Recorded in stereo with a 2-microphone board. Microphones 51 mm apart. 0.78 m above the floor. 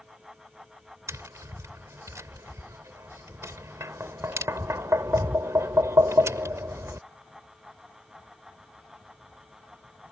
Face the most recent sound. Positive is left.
turn(degrees=-85)